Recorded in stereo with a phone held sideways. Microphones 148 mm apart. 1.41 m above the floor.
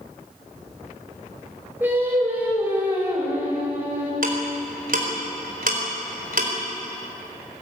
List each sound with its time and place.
1.8 s singing: 10° right (ahead or behind), 4.5 m
4.2 s ticking: 65° right (ahead or behind), 4 m